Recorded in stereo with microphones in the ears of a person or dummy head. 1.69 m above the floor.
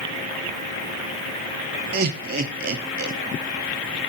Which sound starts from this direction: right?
Laughter, at 1.9 s.